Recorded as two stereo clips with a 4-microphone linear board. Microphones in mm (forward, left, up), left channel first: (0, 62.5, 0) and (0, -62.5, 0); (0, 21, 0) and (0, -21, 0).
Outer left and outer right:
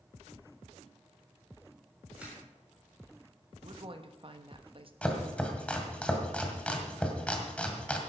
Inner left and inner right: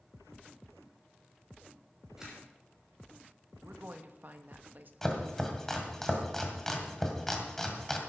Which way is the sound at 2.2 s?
10° right (ahead or behind).